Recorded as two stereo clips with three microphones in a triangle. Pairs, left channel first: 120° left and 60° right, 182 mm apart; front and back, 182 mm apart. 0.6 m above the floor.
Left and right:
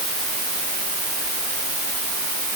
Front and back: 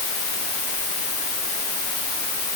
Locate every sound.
Only background noise.